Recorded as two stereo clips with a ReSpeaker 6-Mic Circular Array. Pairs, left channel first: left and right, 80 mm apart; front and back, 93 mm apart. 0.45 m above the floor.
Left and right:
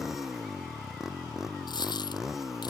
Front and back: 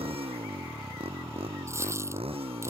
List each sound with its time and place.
0.0 s a motorcycle: 175° right
1.7 s a dropped coin: 120° left